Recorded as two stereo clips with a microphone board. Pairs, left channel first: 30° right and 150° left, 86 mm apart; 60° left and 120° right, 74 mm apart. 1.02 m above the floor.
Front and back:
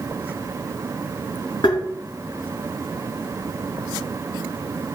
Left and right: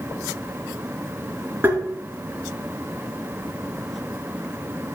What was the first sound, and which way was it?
Tapping, 55° right.